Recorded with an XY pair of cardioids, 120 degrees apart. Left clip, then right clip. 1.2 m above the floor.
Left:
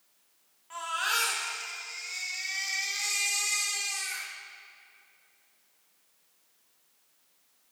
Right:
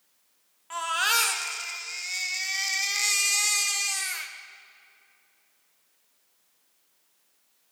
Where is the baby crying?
45° right, 1.3 m.